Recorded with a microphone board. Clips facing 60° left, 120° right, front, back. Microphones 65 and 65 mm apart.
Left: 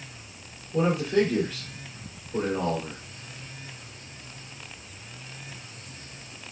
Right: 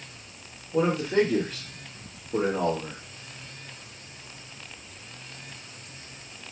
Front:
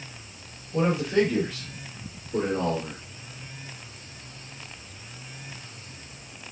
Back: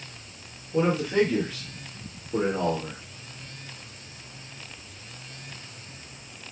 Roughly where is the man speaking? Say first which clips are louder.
Even, even; right.